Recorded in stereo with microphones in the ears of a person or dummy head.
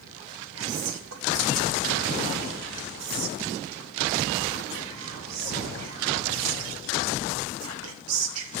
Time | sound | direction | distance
0.6 | whispering | 80° right | 1.2 m